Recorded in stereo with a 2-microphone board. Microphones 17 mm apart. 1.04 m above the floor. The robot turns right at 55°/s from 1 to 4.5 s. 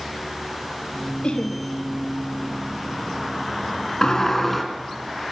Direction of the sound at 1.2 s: 65° left (ahead or behind).